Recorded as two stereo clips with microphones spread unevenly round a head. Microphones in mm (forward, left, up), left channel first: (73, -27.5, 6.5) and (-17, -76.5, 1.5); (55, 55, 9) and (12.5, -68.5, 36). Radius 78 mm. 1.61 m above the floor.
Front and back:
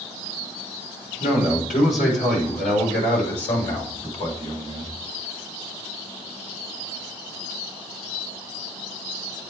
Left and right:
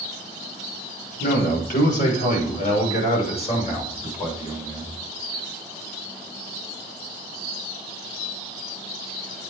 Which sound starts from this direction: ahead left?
A man speaking, at 1.2 s.